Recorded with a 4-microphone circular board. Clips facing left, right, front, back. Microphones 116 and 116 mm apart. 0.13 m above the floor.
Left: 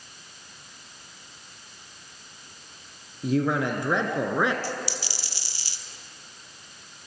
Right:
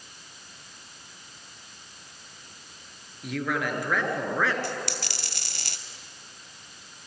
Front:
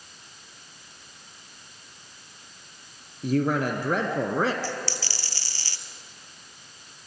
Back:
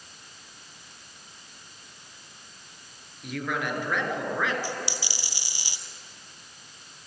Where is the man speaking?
40° left, 2.5 m; by 4.5 s 25° left, 2.0 m.